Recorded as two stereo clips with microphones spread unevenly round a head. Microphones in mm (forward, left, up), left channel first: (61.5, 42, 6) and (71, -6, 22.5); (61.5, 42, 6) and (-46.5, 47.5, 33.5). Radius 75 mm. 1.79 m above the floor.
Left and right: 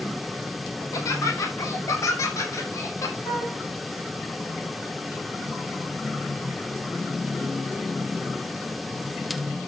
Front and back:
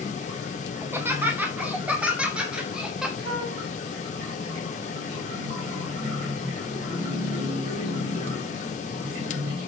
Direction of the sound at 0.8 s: 110° left.